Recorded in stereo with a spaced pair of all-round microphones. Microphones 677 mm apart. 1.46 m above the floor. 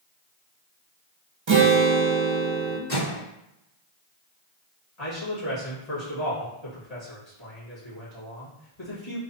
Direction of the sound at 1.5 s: 45° right (ahead or behind).